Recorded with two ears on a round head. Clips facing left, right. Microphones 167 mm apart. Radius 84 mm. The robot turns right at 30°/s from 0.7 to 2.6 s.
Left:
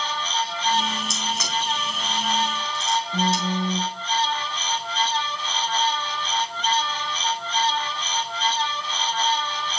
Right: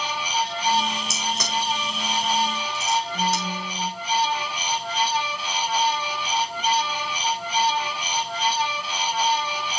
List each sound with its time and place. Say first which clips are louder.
1.1 s a crack: right 1 dB; centre (ahead or behind), 7.5 m; by 3.4 s 45° right (ahead or behind), 7.5 m
3.1 s a phone buzzing: left 3 dB; 35° left (ahead or behind), 1.3 m